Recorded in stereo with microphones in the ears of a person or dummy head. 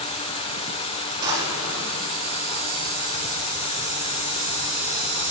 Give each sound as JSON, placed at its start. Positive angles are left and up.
{"t": 1.2, "sound": "a drawer", "side_deg": -15, "distance_m": 7.5}